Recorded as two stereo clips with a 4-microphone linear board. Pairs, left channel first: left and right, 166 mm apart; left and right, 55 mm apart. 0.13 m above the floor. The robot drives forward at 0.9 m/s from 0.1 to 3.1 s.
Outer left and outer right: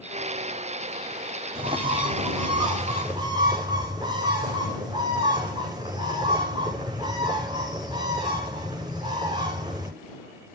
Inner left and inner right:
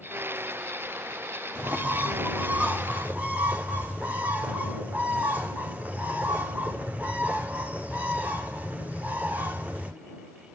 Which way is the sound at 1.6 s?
30° right (ahead or behind).